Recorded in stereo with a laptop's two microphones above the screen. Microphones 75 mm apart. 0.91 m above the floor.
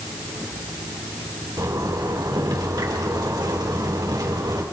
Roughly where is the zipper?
Right.